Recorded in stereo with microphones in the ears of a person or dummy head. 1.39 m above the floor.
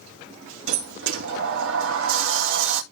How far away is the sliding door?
About 1.7 m.